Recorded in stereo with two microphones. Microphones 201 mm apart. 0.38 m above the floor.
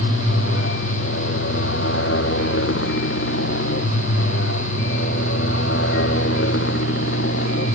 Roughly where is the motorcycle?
Left.